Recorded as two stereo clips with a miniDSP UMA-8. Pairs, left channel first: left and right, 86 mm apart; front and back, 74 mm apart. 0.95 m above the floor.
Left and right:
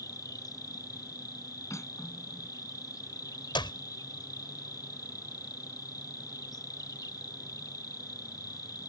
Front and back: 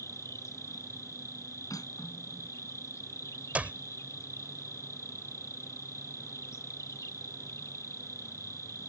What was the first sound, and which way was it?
An insect, 45° left.